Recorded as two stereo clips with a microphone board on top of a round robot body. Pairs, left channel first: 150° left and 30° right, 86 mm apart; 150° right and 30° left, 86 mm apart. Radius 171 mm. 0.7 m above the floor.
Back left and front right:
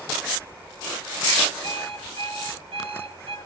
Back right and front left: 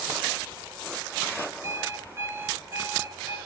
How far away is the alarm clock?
About 8.5 m.